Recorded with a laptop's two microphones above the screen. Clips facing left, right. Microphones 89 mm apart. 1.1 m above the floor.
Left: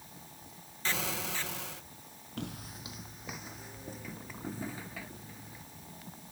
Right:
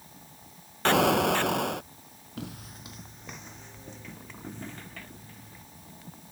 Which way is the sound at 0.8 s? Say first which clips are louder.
Right 15 dB; 65° right (ahead or behind).